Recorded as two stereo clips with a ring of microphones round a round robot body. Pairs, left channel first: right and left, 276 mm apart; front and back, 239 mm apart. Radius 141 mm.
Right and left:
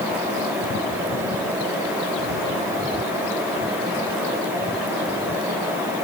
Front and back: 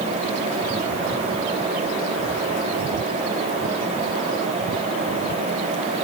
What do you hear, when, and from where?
Only background noise.